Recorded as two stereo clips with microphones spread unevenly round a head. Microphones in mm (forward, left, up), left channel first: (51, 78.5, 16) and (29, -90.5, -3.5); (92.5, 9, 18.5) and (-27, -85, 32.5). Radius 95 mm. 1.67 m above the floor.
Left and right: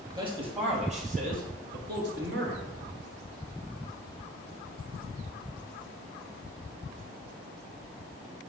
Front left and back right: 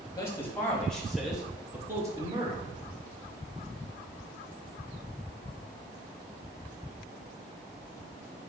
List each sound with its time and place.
0.1 s a man speaking: 35° right, 3.5 m; by 2.6 s 85° right, 3 m